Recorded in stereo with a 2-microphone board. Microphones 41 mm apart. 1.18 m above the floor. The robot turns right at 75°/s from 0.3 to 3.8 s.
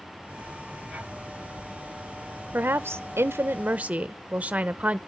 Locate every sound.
2.5 s a woman speaking: 130° right, 0.7 m; by 5.0 s 35° right, 0.7 m